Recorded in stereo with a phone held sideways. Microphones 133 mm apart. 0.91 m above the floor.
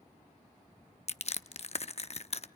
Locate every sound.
1.1 s crushing: 50° left (ahead or behind), 0.6 m